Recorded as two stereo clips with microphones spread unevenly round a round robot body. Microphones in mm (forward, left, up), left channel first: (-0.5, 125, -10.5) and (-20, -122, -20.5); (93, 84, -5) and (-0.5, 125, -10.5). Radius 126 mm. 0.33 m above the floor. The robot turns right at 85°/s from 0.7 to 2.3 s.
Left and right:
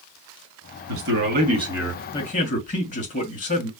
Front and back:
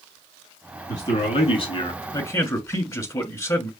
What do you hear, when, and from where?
0.9 s a man speaking: 90° right, 2 m; by 3.7 s 30° left, 2 m